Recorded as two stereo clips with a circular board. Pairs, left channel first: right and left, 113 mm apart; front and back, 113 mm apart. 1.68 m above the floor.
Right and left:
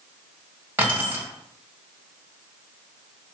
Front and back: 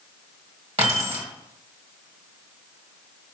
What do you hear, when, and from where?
0.8 s keys jangling: 160° left, 1.7 m